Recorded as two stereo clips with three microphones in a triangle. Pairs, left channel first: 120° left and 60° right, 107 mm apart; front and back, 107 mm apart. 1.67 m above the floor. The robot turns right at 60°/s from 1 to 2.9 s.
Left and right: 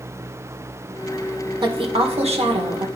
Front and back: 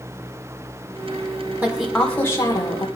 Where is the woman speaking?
105° right, 1.7 m; by 2.9 s 30° right, 1.7 m.